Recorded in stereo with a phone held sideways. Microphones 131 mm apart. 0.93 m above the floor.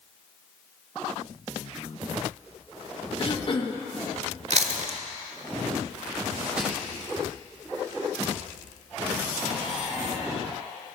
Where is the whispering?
5° right (ahead or behind), 1.1 m.